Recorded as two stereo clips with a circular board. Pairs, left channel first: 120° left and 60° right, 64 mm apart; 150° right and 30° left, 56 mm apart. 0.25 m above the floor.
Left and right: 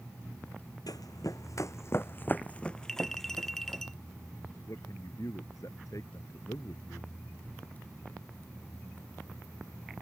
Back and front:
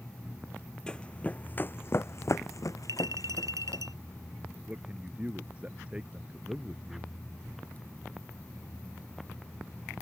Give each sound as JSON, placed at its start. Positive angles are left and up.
{"t": 0.9, "sound": "running footsteps", "azimuth_deg": 135}
{"t": 2.9, "sound": "a clink", "azimuth_deg": 35}
{"t": 4.7, "sound": "a man speaking", "azimuth_deg": 95}